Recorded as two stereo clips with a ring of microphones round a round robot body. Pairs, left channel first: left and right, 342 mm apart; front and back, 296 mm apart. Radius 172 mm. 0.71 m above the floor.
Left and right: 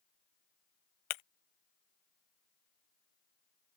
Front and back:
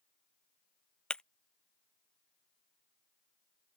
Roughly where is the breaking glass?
Left.